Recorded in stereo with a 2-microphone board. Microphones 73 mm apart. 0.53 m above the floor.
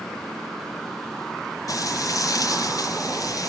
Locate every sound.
1.7 s frying: 55° left (ahead or behind), 4.5 m